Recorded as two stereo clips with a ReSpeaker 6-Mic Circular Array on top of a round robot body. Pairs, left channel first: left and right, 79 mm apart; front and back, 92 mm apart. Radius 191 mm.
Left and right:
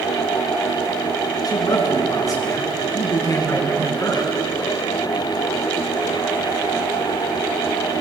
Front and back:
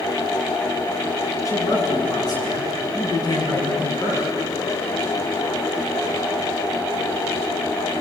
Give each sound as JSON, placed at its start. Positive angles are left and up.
{"t": 1.4, "sound": "a man speaking", "azimuth_deg": 55, "distance_m": 7.0}